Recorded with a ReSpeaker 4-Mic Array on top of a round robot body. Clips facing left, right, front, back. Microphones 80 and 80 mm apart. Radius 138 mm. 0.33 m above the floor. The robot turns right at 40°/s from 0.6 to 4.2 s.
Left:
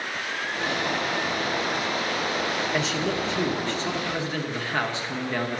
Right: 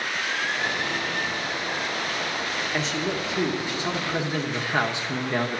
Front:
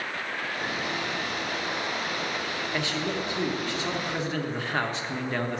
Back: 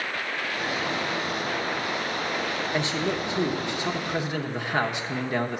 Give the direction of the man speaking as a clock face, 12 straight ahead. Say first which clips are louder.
Left 1 dB, back 2 dB; 6 o'clock.